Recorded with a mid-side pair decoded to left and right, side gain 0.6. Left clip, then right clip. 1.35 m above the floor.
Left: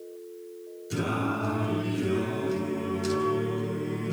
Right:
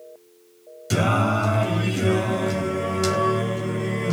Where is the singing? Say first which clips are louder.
Right 8 dB; 70° right, 4 m.